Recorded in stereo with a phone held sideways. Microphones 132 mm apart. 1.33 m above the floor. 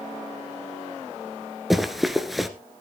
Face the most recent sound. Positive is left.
turn(degrees=0)  # may be behind; listen again after turning